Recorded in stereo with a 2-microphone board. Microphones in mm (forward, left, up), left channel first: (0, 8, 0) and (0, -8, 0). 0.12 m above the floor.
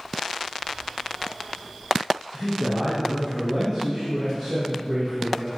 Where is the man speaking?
55° right (ahead or behind), 3 m; by 5.5 s centre (ahead or behind), 3 m.